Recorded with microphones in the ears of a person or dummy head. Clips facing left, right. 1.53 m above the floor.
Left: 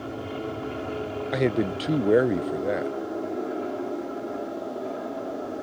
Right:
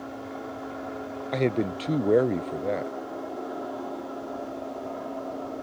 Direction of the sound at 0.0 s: 40° left (ahead or behind).